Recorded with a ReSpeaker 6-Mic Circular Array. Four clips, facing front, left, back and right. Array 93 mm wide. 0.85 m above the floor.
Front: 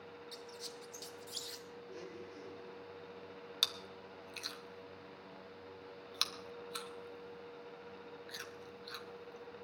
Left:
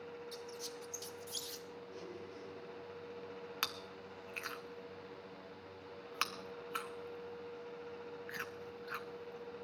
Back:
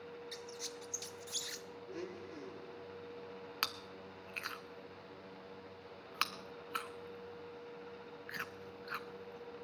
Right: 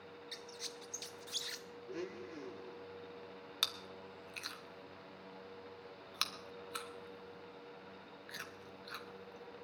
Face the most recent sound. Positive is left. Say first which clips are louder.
# even, back 5 dB
turn(degrees=155)